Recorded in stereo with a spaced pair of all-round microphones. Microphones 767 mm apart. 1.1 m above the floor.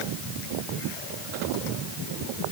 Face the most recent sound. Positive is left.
No sound to turn to.